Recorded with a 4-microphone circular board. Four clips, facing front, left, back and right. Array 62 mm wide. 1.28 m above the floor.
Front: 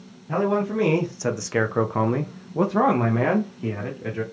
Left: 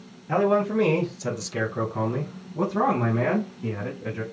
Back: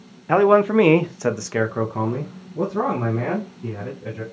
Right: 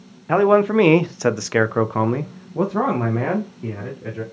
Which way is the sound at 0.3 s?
145° right.